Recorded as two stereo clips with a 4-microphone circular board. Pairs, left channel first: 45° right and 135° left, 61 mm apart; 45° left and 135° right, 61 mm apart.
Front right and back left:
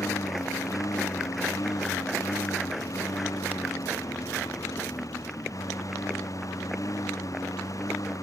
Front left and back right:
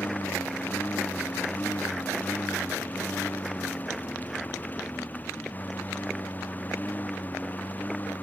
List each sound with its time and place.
0.0 s a lawn mower: 20° right